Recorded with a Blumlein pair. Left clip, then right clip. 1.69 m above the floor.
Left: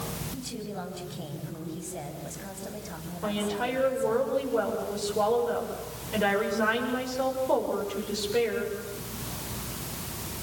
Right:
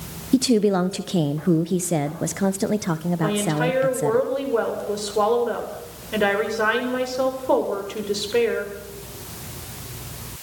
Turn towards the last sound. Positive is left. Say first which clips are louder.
# right 6 dB
turn(degrees=-25)